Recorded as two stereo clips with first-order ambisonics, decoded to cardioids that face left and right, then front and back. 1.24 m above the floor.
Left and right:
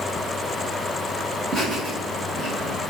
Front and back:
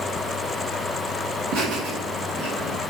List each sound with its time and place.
1.5 s laughter: 155° right, 1.3 m